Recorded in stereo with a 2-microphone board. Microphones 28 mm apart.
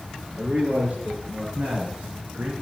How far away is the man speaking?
About 4 m.